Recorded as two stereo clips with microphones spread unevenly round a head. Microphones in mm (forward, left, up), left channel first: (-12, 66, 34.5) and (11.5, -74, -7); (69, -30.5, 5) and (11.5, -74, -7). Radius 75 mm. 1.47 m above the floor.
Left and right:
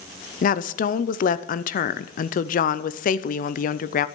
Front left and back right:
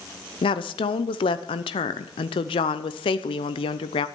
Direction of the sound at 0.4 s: 55° left.